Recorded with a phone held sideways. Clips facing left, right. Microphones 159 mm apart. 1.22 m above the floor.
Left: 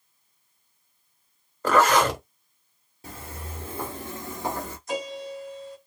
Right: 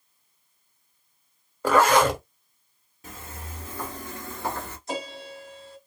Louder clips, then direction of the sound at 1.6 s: Right 1 dB; 10° right (ahead or behind).